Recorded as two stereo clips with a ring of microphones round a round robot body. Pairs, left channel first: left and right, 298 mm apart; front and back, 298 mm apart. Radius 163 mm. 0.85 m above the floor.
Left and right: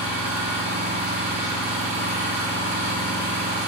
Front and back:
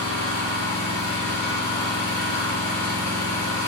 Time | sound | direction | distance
0.0 | an engine running | 25° right | 1.4 m